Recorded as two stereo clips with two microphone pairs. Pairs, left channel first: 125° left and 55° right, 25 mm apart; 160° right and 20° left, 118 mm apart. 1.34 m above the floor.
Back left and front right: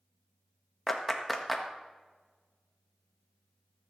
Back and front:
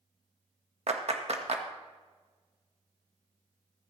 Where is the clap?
40° left, 1.5 m.